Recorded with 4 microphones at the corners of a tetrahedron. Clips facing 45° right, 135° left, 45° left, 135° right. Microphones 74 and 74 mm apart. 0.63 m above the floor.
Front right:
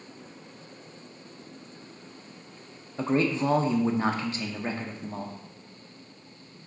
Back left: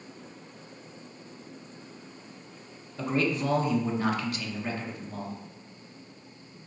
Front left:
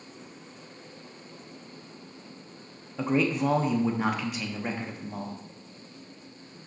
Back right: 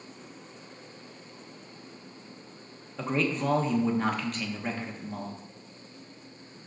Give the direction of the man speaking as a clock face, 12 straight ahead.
1 o'clock.